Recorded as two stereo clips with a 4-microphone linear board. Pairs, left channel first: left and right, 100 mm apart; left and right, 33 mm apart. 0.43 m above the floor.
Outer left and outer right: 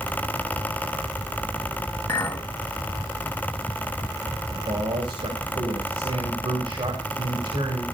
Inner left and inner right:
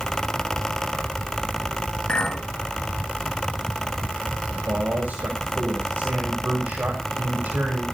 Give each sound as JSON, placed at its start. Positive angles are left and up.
{"t": 2.1, "sound": "a clink", "side_deg": 30, "distance_m": 2.5}
{"t": 4.5, "sound": "a man speaking", "side_deg": -75, "distance_m": 3.0}